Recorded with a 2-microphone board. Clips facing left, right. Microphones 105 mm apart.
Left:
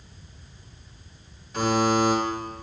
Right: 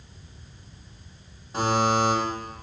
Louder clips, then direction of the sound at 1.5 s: Left 1 dB; 35° right (ahead or behind).